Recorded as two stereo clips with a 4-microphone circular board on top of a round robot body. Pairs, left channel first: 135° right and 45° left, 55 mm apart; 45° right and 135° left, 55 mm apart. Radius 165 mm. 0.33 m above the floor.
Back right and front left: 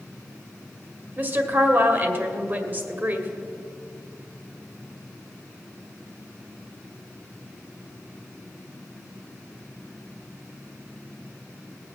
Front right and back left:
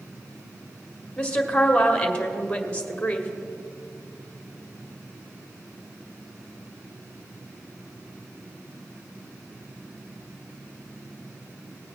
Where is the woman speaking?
15° left, 1.8 m.